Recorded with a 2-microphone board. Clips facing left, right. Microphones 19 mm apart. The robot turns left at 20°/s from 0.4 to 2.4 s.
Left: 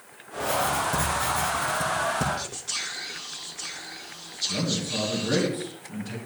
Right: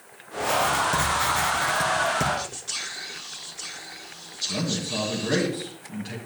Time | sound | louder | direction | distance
0.4 | writing | right 3 dB | 35° right | 1.7 m
2.4 | whispering | even | 10° right (ahead or behind) | 1.4 m
4.5 | a man speaking | right 1 dB | 65° right (ahead or behind) | 2 m